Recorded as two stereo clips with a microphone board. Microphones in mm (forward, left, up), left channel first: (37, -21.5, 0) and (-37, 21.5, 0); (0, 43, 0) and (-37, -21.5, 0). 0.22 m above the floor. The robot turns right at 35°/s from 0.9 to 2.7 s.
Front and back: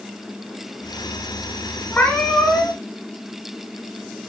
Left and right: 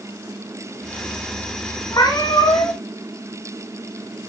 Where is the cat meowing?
35° left, 1.4 m; by 2.8 s 65° left, 1.4 m.